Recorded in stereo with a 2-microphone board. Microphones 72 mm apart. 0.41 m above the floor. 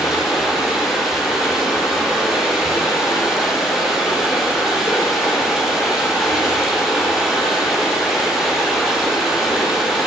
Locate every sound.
0.0 s running water: 5° right (ahead or behind), 4.5 m